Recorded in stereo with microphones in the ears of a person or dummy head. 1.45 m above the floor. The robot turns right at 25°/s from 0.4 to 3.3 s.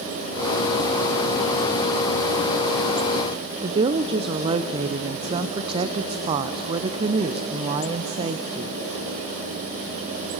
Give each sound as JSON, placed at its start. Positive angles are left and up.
{"t": 3.6, "sound": "a woman speaking", "side_deg": -25, "distance_m": 0.5}